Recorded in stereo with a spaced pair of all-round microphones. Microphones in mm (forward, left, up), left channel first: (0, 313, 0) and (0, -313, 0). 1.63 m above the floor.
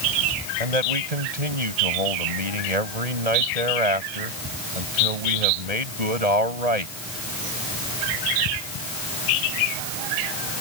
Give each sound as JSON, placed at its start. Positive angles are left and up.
{"t": 0.6, "sound": "a man speaking", "side_deg": -80}